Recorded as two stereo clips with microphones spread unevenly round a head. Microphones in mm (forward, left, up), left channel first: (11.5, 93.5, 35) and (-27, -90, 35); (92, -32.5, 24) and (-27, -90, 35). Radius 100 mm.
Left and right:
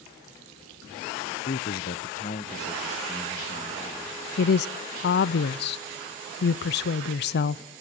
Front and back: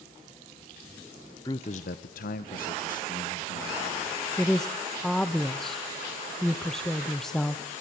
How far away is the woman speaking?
About 0.5 m.